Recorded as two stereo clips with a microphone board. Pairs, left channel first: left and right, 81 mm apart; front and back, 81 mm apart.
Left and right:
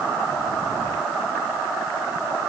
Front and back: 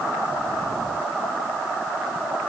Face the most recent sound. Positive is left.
No sound to turn to.